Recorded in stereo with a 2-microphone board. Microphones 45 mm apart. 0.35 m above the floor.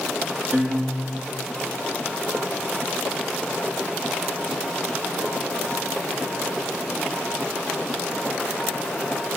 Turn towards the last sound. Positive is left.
turn(degrees=-35)  # may be behind; listen again after turning